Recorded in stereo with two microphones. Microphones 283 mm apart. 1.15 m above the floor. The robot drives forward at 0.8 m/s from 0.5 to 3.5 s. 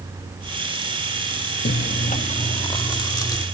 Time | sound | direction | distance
1.6 | chewing | 40° left (ahead or behind) | ?